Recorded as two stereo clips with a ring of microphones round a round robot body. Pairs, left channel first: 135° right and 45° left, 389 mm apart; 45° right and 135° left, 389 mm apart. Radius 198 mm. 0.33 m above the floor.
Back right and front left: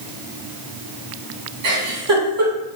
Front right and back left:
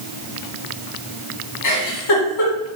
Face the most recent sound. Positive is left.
turn(degrees=-5)